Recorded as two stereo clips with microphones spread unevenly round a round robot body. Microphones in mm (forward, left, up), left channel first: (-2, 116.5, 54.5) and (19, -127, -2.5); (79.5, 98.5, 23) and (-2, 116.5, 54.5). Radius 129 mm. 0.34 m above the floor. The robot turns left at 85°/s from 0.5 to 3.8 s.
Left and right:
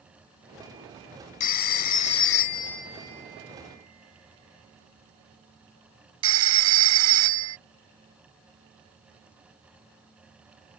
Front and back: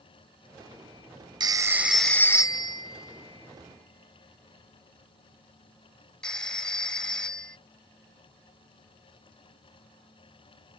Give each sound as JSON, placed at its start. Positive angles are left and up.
{"t": 1.4, "sound": "a phone ringing", "azimuth_deg": 120}